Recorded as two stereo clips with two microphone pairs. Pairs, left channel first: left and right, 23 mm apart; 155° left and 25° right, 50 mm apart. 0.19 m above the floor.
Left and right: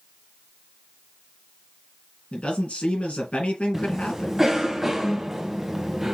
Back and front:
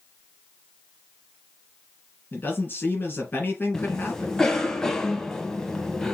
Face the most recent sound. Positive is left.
turn(degrees=-145)